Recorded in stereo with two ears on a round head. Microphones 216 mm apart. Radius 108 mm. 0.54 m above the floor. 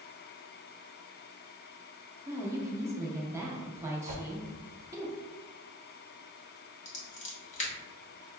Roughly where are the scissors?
Left.